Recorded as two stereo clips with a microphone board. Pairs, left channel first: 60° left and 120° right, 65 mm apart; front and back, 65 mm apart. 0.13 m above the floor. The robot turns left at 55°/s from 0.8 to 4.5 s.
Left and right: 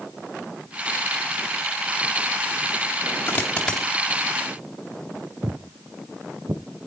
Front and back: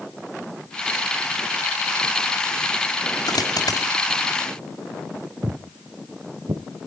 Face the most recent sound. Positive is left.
turn(degrees=-170)